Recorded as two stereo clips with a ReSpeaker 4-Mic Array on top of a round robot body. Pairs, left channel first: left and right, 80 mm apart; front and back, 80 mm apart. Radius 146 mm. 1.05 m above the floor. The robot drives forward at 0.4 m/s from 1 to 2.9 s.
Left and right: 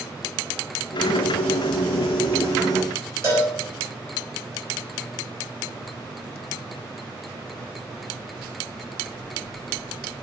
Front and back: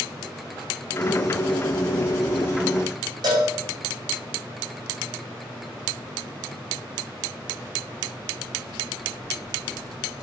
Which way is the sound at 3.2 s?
145° right.